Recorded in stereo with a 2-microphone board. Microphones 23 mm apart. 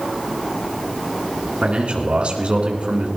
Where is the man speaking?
60° right (ahead or behind), 3.5 m.